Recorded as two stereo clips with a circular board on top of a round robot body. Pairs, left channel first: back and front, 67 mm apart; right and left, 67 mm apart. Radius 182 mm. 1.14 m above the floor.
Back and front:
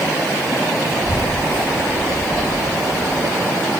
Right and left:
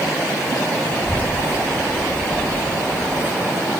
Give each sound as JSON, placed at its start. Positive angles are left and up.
{"t": 0.9, "sound": "a child speaking", "azimuth_deg": -25, "distance_m": 4.0}